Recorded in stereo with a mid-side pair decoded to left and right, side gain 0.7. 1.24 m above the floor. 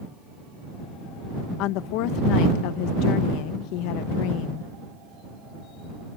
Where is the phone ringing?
No phone ringing in this recording.